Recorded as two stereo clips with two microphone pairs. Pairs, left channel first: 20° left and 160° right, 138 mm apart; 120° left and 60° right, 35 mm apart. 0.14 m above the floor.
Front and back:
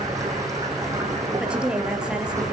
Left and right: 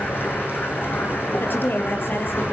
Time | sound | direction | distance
0.0 | running water | 135° left | 6.5 m
1.4 | a woman speaking | 115° left | 3.5 m